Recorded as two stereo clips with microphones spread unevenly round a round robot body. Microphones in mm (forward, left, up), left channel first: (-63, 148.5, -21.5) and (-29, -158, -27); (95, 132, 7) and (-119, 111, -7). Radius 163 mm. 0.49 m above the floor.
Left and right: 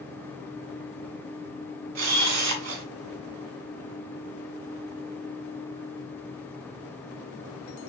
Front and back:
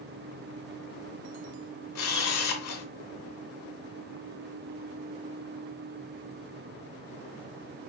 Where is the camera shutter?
35° right, 2 m.